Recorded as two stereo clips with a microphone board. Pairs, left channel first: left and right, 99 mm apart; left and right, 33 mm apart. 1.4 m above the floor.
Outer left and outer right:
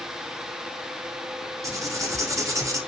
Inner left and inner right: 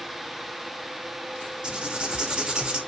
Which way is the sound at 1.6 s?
30° right (ahead or behind).